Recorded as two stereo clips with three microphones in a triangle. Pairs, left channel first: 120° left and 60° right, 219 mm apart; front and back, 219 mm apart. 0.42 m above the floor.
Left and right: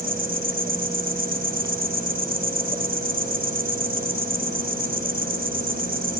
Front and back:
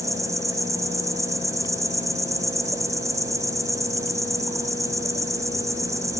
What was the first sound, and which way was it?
An insect, 105° right.